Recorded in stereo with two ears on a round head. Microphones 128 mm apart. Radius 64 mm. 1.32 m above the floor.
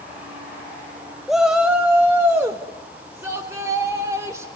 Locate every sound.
1.3 s a shout: centre (ahead or behind), 0.6 m; by 4.5 s 15° right (ahead or behind), 3 m